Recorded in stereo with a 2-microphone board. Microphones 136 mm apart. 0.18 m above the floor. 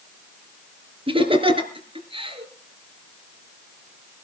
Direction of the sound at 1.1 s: 40° right (ahead or behind).